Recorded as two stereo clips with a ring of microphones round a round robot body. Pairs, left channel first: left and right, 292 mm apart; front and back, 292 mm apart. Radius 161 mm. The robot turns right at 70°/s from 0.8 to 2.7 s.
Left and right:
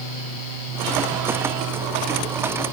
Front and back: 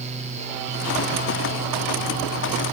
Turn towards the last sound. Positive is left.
No sound to turn to.